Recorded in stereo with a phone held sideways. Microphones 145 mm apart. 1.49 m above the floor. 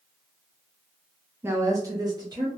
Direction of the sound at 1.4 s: 15° right (ahead or behind).